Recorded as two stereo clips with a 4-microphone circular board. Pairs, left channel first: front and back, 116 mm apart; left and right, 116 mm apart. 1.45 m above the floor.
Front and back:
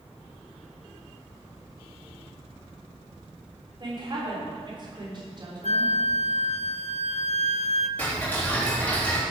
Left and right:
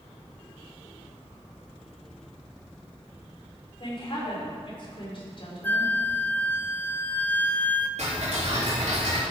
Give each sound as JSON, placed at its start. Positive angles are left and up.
{"t": 3.8, "sound": "a woman speaking", "azimuth_deg": 130, "distance_m": 3.5}
{"t": 5.6, "sound": "a flute", "azimuth_deg": 15, "distance_m": 0.6}
{"t": 8.0, "sound": "ticking", "azimuth_deg": -75, "distance_m": 3.5}